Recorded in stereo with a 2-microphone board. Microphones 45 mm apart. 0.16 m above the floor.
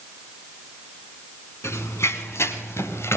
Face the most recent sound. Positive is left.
turn(degrees=65)  # may be behind; listen again after turning